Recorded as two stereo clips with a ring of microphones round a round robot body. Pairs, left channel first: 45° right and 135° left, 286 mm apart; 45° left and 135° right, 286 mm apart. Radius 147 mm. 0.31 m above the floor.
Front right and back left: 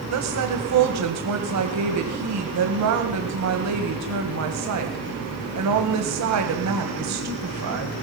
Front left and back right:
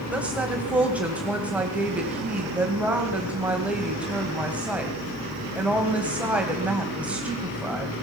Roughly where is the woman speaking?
Behind left.